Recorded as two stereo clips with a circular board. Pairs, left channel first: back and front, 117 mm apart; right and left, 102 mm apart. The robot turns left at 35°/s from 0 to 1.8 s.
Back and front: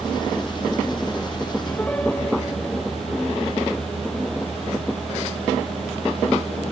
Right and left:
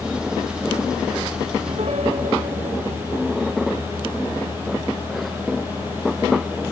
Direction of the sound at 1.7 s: 110° left.